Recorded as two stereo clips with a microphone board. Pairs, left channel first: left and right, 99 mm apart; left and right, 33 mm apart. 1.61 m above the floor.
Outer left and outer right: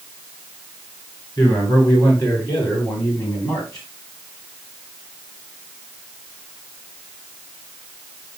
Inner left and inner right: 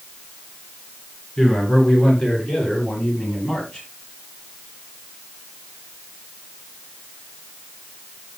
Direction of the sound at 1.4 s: 35° left (ahead or behind).